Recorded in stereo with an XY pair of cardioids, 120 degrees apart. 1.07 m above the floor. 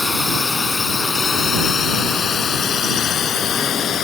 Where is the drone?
20° left; by 4.0 s 55° left.